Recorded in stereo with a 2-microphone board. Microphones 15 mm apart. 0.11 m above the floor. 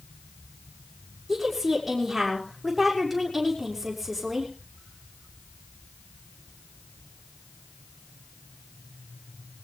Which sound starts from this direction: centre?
A woman speaking, at 1.3 s.